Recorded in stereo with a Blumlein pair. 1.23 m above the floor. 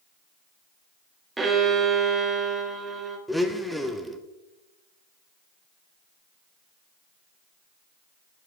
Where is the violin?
10° right, 1.0 m.